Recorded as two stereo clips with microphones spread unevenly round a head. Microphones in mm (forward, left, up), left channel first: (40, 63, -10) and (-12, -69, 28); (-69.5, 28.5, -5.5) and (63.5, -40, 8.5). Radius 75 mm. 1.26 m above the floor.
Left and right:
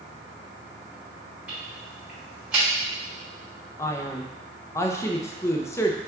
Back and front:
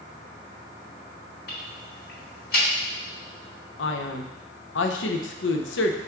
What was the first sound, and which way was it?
Ticking, 170° left.